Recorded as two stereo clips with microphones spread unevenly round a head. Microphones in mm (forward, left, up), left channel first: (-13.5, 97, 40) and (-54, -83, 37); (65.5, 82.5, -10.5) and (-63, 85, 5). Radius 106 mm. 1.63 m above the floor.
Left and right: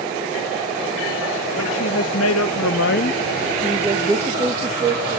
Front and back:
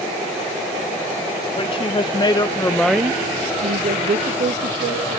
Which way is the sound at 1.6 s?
45° left.